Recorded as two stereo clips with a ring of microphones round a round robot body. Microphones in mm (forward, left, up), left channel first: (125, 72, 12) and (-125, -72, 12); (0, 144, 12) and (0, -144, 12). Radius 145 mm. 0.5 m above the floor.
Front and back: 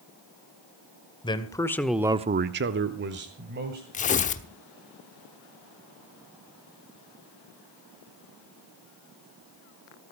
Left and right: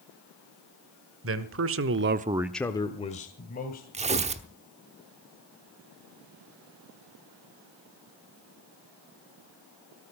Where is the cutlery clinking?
I don't hear cutlery clinking.